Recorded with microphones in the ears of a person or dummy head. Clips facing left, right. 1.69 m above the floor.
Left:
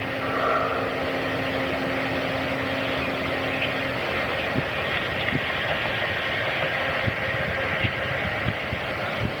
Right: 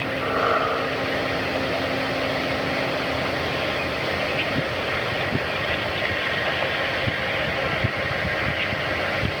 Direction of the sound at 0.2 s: 60° right (ahead or behind).